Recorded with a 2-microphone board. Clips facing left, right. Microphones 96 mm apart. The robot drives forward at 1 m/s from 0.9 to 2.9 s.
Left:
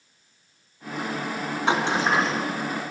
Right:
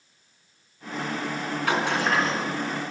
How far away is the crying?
I don't hear crying.